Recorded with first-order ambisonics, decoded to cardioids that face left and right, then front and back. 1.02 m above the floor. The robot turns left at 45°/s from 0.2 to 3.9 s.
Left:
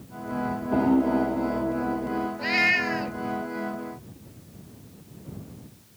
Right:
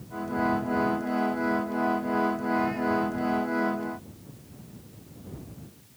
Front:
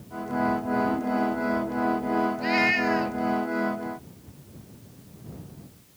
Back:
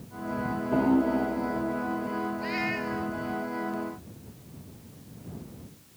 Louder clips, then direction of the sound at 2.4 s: Left 6 dB, front 10 dB; 75° left.